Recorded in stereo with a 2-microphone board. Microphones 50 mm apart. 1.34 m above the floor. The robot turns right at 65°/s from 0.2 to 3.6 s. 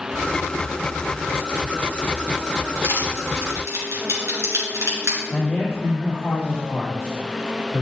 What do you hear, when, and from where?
2.8 s crushing: 40° right (ahead or behind), 3 m; by 5.2 s 70° right (ahead or behind), 3 m
5.3 s a man speaking: 10° left (ahead or behind), 3 m